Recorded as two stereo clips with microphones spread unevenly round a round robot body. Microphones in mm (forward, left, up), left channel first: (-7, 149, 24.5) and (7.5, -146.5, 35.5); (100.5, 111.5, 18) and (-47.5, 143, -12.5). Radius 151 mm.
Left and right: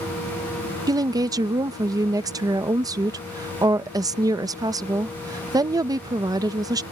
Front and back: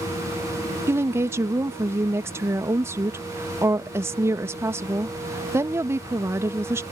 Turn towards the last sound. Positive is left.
turn(degrees=-160)